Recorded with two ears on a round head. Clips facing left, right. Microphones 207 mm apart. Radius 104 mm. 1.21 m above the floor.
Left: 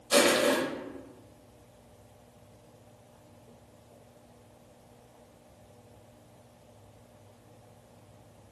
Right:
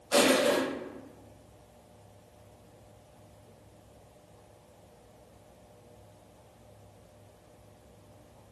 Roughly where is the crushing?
Left.